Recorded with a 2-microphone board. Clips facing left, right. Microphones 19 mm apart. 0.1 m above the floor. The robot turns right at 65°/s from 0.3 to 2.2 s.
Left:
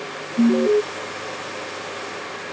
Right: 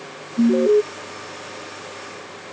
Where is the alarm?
20° right (ahead or behind); by 0.8 s 35° right (ahead or behind).